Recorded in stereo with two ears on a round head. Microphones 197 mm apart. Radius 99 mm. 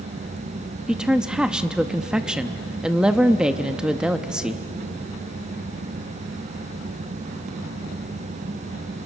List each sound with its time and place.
0.9 s a woman speaking: 5° right (ahead or behind), 0.7 m